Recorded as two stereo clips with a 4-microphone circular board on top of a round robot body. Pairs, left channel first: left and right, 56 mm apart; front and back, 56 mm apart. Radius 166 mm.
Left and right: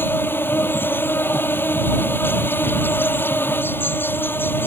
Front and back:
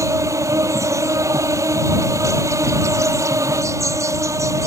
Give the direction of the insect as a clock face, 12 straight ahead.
7 o'clock.